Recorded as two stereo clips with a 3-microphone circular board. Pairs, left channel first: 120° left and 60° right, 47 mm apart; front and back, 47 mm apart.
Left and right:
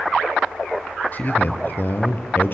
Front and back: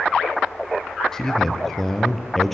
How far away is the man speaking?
About 2.5 m.